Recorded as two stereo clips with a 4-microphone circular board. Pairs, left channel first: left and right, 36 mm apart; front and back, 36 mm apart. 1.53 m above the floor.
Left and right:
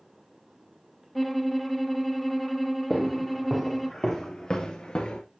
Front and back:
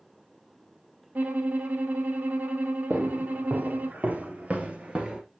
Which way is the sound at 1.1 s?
175° left.